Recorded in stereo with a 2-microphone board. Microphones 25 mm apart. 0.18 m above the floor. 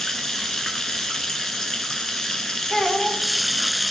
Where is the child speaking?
30° left (ahead or behind), 1.3 m.